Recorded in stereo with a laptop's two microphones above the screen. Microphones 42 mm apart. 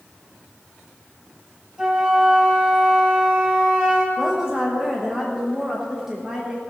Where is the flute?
25° right (ahead or behind), 2.5 m.